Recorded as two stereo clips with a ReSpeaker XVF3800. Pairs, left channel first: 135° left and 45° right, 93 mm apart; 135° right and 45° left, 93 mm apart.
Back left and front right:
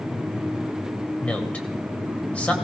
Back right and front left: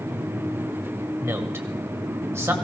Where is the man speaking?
75° left, 1.4 m.